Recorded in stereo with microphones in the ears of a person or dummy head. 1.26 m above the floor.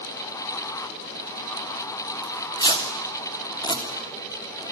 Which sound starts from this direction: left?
Tearing paper, at 2.2 s.